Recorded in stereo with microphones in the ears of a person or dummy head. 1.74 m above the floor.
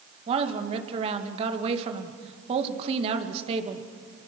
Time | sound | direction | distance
0.3 | a woman speaking | 35° right (ahead or behind) | 2 m